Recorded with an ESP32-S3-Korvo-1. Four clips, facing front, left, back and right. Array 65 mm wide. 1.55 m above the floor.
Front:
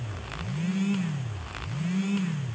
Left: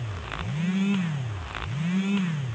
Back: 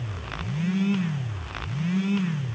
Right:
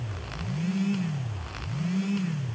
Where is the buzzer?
I don't hear a buzzer.